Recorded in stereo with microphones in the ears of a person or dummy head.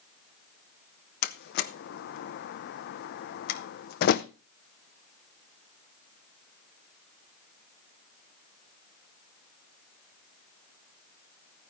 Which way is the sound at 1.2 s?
60° left (ahead or behind).